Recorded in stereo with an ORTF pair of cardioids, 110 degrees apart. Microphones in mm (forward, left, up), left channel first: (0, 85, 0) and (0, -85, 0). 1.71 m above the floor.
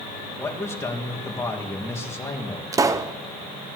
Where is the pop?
20° right, 1.0 m.